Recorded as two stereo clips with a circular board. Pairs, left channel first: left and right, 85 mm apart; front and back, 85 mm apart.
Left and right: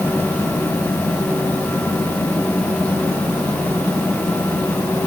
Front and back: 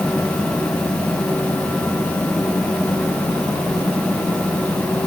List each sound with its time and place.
Only background noise.